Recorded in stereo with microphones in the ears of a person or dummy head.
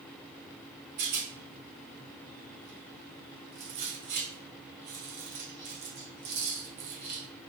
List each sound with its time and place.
1.0 s a rattle: 50° right (ahead or behind), 0.8 m